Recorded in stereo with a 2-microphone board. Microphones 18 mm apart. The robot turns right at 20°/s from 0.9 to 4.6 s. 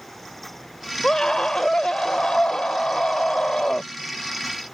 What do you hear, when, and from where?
1.0 s a scream: 40° left; by 3.9 s 100° left